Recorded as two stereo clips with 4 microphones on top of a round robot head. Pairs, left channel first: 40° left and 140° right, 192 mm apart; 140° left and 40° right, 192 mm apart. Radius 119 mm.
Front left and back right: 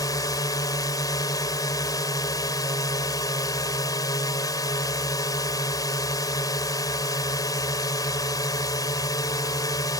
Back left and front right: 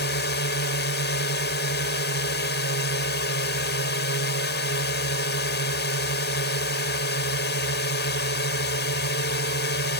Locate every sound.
0.0 s a drone: 110° left